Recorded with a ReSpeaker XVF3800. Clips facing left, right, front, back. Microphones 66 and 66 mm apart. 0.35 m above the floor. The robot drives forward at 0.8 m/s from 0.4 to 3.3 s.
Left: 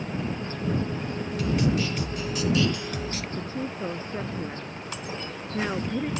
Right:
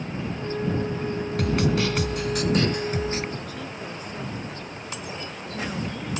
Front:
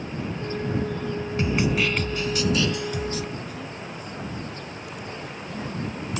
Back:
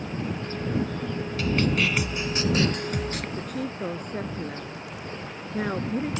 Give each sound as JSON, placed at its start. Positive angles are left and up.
{"t": 1.4, "sound": "a snare drum", "azimuth_deg": -65}
{"t": 3.4, "sound": "a woman speaking", "azimuth_deg": 150}